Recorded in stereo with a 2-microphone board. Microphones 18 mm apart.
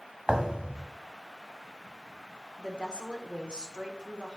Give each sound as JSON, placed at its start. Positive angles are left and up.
{"t": 0.3, "sound": "a thud", "side_deg": -50, "distance_m": 0.7}
{"t": 2.6, "sound": "a woman speaking", "side_deg": -55, "distance_m": 1.5}